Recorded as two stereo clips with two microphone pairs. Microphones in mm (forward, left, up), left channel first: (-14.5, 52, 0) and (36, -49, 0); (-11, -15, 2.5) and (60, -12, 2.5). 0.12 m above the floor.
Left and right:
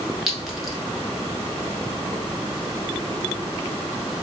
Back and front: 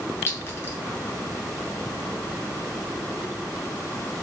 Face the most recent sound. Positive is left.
turn(degrees=-155)